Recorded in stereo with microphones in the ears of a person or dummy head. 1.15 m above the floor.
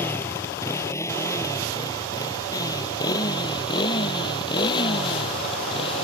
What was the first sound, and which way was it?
A motorcycle, 10° left (ahead or behind).